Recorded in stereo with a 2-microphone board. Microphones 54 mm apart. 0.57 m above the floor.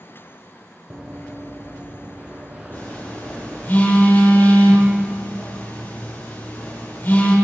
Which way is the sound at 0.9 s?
15° right (ahead or behind).